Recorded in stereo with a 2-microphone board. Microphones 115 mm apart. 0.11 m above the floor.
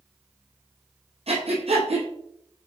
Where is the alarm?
No alarm in this recording.